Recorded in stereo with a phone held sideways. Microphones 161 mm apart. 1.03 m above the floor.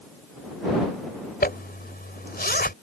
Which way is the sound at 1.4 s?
70° left (ahead or behind).